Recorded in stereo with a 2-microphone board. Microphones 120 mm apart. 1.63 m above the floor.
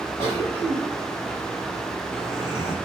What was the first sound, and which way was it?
A cough, 55° left (ahead or behind).